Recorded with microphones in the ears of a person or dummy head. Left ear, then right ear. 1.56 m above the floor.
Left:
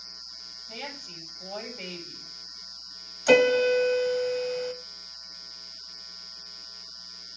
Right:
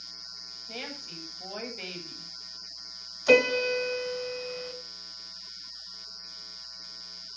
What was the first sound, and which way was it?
A woman speaking, 30° right (ahead or behind).